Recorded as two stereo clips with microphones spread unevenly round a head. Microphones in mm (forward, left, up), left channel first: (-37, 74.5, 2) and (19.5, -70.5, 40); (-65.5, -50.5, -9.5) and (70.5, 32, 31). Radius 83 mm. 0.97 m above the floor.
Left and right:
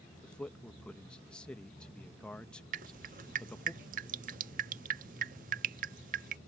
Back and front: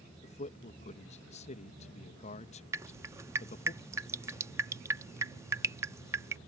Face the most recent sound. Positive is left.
turn(degrees=-35)